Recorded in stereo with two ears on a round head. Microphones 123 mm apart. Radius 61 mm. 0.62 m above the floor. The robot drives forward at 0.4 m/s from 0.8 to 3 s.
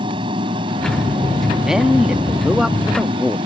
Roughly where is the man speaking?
Centre.